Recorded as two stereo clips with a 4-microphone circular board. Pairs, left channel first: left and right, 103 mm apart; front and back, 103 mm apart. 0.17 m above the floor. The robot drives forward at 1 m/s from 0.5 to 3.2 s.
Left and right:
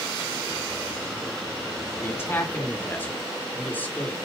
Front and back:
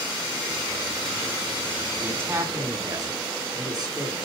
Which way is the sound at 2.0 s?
125° left.